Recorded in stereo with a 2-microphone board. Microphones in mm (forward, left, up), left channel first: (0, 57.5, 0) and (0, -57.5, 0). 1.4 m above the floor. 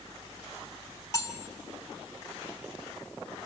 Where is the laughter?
I don't hear laughter.